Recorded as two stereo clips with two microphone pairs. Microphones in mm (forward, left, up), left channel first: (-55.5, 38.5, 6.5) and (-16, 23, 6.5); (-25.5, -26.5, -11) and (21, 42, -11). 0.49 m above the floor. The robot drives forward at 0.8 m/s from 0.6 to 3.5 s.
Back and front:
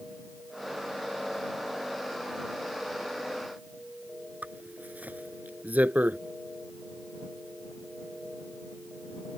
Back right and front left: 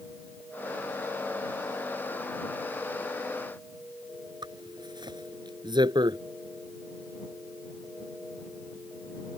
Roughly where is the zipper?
Ahead left.